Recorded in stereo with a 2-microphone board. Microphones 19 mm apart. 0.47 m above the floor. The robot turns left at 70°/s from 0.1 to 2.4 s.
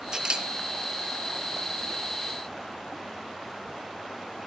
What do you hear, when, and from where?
0.1 s a camera shutter: 40° right (ahead or behind), 2 m; by 0.5 s 60° right (ahead or behind), 2 m